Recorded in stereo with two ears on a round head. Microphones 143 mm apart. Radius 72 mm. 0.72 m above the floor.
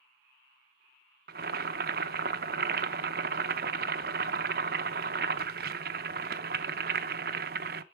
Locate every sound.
1.3 s boiling: 70° right (ahead or behind), 0.7 m